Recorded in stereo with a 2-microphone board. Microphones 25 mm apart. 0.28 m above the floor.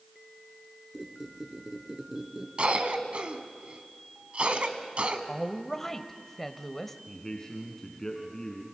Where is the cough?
50° right (ahead or behind), 2.5 m.